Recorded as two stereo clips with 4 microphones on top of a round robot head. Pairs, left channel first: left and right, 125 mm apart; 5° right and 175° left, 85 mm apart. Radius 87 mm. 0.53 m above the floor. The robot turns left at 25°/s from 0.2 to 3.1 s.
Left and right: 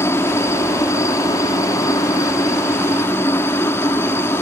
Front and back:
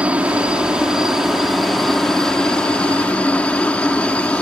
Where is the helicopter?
125° left; by 4.4 s 50° left.